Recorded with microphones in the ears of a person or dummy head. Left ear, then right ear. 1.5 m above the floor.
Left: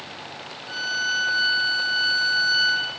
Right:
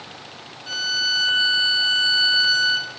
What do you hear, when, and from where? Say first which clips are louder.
0.7 s a violin: right 4 dB; 75° right (ahead or behind), 1.1 m